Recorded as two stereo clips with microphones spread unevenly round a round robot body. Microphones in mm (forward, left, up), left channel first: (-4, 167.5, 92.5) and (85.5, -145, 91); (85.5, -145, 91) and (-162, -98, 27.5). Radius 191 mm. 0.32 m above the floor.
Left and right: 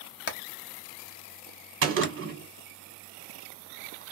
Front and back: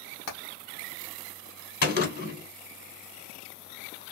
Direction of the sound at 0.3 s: 45° left.